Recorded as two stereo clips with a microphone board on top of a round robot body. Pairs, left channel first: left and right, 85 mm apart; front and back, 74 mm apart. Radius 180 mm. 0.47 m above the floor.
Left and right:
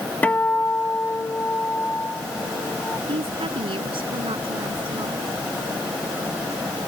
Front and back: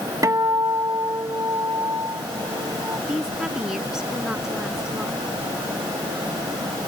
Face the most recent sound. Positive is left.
turn(degrees=-100)